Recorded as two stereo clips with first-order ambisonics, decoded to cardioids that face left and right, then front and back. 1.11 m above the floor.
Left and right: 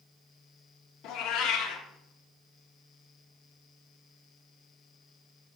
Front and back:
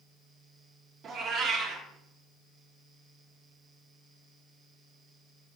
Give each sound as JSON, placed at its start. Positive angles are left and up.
{"t": 1.0, "sound": "a cat meowing", "azimuth_deg": 120, "distance_m": 1.0}